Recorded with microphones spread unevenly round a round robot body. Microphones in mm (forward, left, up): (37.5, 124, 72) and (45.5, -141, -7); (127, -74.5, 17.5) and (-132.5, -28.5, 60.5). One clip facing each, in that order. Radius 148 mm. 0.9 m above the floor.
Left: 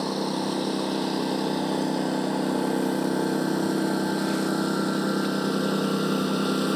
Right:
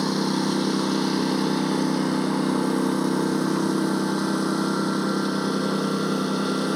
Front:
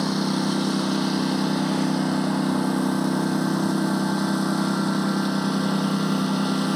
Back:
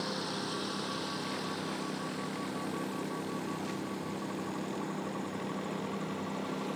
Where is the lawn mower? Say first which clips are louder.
Right 4 dB, front 14 dB; 25° right; by 6.8 s 5° left.